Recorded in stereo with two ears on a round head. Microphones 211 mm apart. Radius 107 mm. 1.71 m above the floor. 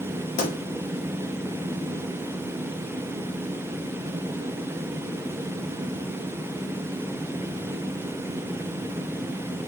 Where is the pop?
30° left (ahead or behind), 0.8 m.